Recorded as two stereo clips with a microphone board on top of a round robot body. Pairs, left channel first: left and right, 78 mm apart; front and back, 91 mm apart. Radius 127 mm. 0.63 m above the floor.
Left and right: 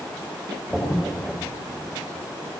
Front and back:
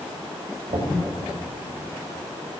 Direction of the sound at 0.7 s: 175° right.